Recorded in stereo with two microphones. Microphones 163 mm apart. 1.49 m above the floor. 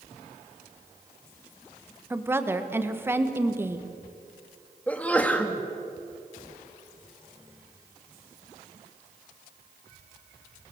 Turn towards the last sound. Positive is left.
turn(degrees=10)  # may be behind; listen again after turning